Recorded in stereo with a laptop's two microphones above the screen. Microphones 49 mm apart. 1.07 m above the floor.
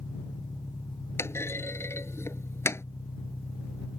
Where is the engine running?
65° left (ahead or behind).